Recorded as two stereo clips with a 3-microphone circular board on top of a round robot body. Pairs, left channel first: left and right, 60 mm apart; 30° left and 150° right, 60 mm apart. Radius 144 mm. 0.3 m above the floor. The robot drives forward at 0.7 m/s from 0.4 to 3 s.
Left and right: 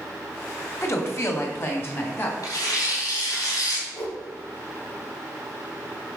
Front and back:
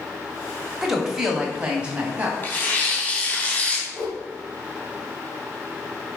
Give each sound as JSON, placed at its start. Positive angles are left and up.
{"t": 0.8, "sound": "a woman speaking", "azimuth_deg": 125, "distance_m": 2.0}
{"t": 2.4, "sound": "tearing paper", "azimuth_deg": 90, "distance_m": 3.5}
{"t": 3.9, "sound": "a whoosh", "azimuth_deg": 105, "distance_m": 3.0}